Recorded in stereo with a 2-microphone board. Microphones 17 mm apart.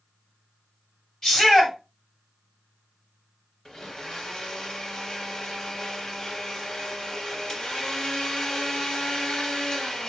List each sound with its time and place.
1.2 s a shout: 35° left (ahead or behind), 1.8 m
3.6 s a blender: 40° left (ahead or behind), 0.7 m